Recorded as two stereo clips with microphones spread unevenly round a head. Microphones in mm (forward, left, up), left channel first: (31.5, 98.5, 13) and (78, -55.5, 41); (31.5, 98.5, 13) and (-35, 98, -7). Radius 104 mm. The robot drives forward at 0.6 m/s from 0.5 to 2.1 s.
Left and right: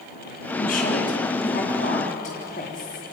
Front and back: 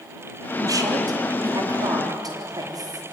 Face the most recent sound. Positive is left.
turn(degrees=160)